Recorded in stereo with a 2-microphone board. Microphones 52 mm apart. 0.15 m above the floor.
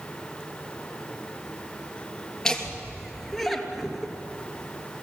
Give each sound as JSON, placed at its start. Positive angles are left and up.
{"t": 2.5, "sound": "laughter", "side_deg": 10, "distance_m": 3.0}